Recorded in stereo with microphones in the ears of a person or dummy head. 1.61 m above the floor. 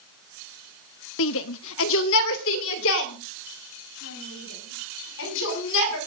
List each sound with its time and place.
1.2 s a shout: 70° left (ahead or behind), 1.1 m